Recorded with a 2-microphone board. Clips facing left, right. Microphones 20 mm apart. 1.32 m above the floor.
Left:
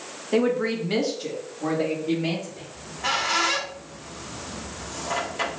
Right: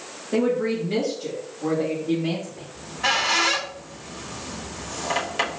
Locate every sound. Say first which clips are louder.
0.3 s a woman speaking: even; 35° left (ahead or behind), 1.1 m; by 2.6 s 75° left (ahead or behind), 2 m
2.7 s a squeak: right 3 dB; 40° right (ahead or behind), 1.2 m